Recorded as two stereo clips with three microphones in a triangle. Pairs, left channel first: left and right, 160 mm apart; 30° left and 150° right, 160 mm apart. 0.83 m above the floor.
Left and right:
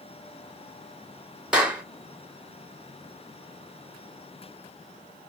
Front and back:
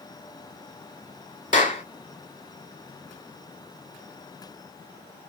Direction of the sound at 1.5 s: 5° right.